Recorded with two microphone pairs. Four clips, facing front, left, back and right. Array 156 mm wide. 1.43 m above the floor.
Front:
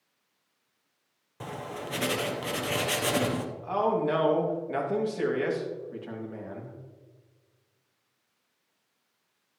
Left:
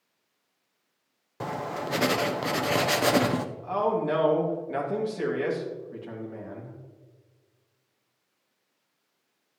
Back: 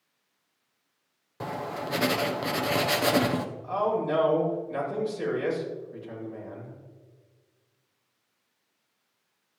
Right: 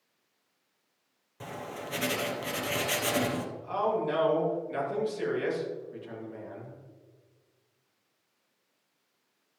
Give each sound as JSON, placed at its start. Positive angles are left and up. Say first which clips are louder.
{"t": 1.4, "sound": "writing", "louder": "left 8 dB, back 4 dB", "azimuth_deg": 115, "distance_m": 0.7}
{"t": 3.6, "sound": "a man speaking", "louder": "left 2 dB, front 2 dB", "azimuth_deg": 45, "distance_m": 2.5}